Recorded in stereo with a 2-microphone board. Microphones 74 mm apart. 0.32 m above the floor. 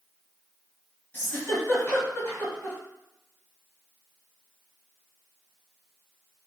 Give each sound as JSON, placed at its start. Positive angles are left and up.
{"t": 1.1, "sound": "a giggle", "side_deg": 35, "distance_m": 1.7}